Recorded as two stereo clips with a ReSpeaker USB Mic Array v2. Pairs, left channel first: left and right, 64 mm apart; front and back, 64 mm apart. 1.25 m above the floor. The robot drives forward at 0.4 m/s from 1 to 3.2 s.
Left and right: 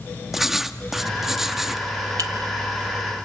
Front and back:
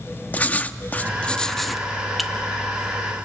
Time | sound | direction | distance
0.3 | writing | 10° right | 0.7 m
2.2 | a clink | 90° right | 1.2 m